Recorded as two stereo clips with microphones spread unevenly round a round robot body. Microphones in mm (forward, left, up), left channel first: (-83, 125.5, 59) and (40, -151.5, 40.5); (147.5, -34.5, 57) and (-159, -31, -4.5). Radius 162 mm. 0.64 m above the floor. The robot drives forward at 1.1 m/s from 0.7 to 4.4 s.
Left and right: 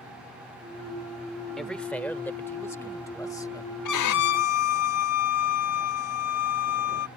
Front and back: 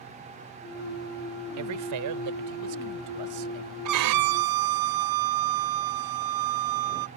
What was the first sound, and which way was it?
A man speaking, 155° right.